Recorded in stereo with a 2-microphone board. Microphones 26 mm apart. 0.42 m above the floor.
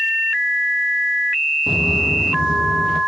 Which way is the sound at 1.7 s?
20° right (ahead or behind).